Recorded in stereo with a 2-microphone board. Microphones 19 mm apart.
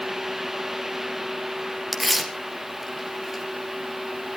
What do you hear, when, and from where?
1.9 s tearing paper: 10° right (ahead or behind), 2.5 m